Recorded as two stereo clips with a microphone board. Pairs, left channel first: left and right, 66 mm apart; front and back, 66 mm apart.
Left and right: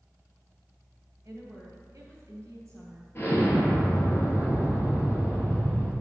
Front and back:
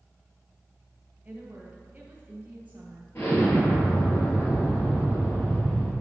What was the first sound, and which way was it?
A woman speaking, 115° right.